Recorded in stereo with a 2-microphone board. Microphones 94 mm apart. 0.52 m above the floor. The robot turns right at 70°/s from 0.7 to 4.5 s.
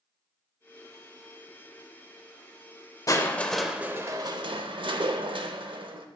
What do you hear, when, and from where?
3.1 s crushing: 145° left, 0.5 m; by 6.1 s 115° right, 0.5 m